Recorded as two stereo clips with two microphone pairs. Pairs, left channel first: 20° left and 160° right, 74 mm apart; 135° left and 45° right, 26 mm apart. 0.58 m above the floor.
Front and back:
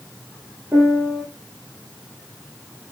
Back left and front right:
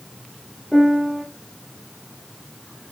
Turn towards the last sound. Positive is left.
turn(degrees=-130)